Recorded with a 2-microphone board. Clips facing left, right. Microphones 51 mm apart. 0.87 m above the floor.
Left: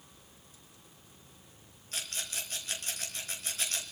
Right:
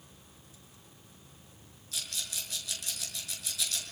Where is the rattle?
45° left (ahead or behind), 5.5 m.